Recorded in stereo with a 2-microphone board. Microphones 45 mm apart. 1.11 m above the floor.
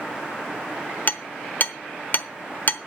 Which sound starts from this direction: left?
Hammering, at 1.1 s.